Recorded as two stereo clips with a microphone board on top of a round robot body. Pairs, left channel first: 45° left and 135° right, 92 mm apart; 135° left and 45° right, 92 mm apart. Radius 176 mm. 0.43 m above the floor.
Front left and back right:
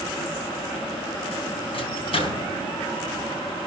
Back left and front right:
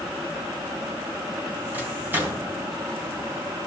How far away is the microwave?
About 4.5 m.